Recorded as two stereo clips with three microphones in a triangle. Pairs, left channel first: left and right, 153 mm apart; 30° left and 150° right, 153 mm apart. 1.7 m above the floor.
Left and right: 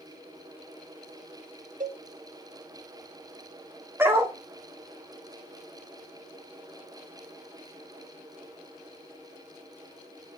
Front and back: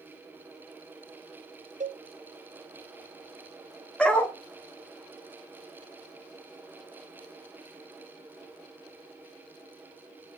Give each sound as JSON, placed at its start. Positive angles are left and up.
{"t": 1.8, "sound": "a cowbell", "azimuth_deg": -120, "distance_m": 0.8}
{"t": 4.0, "sound": "a dog barking", "azimuth_deg": -40, "distance_m": 1.3}